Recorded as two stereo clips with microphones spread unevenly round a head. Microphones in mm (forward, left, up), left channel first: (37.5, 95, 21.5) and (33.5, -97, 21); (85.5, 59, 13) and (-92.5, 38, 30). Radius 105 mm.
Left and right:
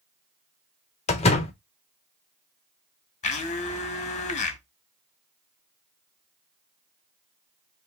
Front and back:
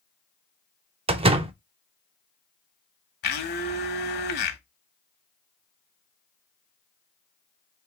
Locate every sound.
1.1 s a door slam: 145° left, 0.5 m
3.2 s a blender: 35° left, 1.1 m